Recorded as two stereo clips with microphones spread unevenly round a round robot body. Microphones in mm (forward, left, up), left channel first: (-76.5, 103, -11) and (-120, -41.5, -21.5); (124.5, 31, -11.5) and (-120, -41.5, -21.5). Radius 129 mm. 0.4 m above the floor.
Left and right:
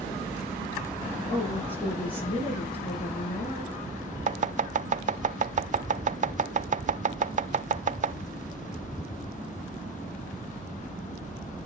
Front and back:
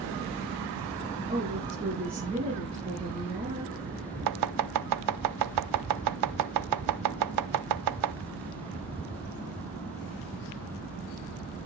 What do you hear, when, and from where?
1.3 s a woman speaking: 125° left, 5.5 m
4.3 s chopping: 150° right, 0.6 m